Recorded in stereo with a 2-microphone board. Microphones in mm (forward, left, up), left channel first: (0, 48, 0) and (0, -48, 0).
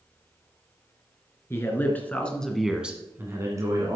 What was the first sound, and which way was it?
A man speaking, 25° left (ahead or behind).